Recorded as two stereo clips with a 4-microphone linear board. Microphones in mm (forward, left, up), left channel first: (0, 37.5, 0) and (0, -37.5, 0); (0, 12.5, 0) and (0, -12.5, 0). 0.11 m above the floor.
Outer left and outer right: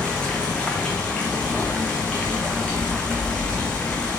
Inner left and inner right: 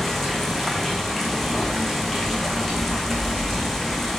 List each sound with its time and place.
0.0 s running water: 15° left (ahead or behind), 1.2 m